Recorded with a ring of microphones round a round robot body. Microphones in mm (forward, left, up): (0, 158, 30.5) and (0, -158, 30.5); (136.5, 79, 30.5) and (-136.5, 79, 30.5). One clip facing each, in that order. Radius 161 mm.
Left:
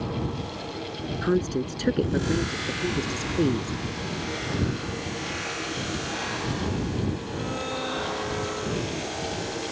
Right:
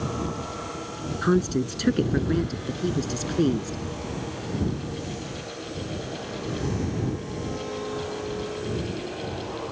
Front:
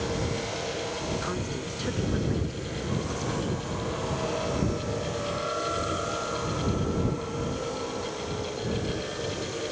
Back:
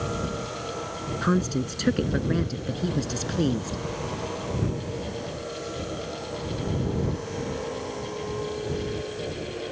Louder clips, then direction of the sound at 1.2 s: Right 2 dB, back 8 dB; 155° right.